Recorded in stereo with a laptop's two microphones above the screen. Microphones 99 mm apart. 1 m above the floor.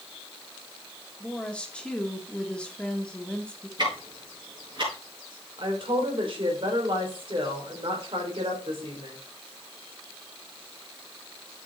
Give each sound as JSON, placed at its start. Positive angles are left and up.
{"t": 1.2, "sound": "a woman speaking", "side_deg": 10, "distance_m": 0.9}
{"t": 3.8, "sound": "ticking", "side_deg": -50, "distance_m": 5.5}
{"t": 5.6, "sound": "a woman speaking", "side_deg": -55, "distance_m": 3.5}